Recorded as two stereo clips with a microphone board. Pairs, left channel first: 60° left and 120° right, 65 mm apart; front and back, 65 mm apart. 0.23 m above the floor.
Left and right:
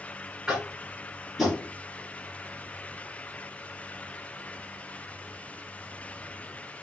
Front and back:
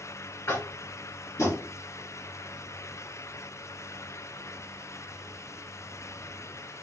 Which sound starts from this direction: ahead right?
Tapping, at 0.5 s.